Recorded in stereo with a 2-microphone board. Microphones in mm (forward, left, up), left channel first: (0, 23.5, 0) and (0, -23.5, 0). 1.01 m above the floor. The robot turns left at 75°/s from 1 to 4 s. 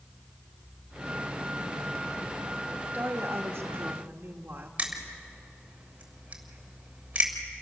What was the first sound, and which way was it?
A woman speaking, 50° right.